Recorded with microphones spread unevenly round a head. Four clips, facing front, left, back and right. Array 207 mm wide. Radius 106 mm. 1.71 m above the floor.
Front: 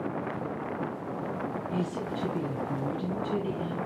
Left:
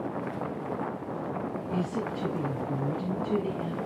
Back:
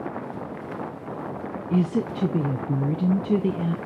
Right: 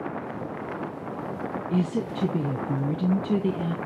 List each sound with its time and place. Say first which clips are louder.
1.7 s a woman speaking: right 5 dB, back 12 dB; 160° right, 1.1 m